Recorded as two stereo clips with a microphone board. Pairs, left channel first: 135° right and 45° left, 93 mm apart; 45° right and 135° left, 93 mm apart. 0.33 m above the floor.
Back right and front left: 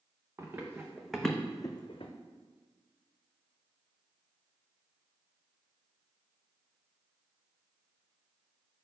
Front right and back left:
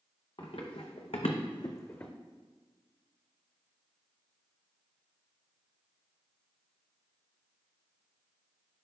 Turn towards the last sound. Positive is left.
turn(degrees=-115)